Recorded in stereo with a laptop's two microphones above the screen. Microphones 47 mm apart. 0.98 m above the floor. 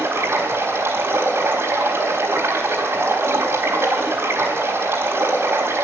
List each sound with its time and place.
0.0 s running water: 60° right (ahead or behind), 3.5 m